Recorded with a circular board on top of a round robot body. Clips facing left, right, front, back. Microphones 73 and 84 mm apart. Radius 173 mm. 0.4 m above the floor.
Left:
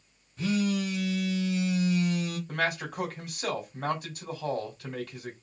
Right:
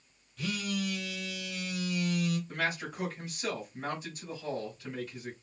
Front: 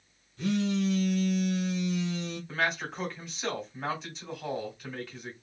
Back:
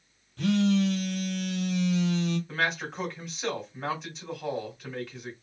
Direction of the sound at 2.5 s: 95° left.